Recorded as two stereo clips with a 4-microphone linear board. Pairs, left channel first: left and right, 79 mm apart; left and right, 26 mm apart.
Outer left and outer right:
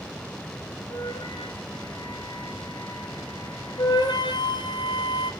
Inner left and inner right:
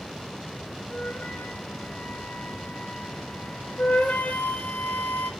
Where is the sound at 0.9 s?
75° left (ahead or behind), 3 m.